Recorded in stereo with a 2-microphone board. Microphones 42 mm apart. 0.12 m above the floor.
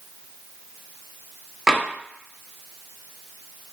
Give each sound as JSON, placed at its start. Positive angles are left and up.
{"t": 1.7, "sound": "tapping", "side_deg": -15, "distance_m": 0.5}